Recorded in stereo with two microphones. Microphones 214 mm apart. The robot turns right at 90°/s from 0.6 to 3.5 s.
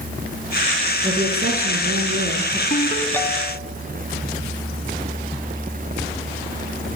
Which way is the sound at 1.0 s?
150° right.